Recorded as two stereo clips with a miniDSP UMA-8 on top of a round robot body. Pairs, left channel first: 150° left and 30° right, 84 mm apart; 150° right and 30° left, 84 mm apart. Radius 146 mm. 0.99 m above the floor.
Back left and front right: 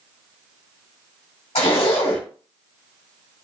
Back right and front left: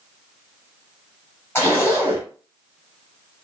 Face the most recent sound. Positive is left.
turn(degrees=145)